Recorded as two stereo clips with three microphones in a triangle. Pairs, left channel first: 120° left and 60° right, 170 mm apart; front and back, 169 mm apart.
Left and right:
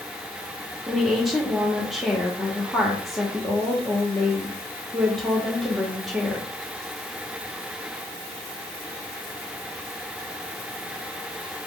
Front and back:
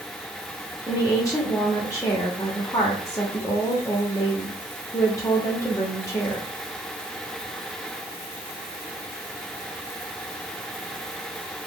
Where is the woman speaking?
25° left, 0.8 m.